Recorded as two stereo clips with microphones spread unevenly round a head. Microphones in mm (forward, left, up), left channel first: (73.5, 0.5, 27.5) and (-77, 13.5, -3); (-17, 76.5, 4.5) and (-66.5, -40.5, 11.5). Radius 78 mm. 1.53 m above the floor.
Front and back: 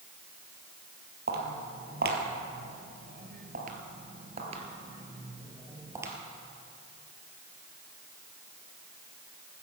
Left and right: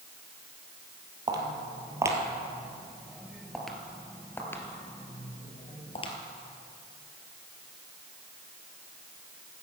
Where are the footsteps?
160° right, 2.5 m; by 6.1 s 95° left, 2 m.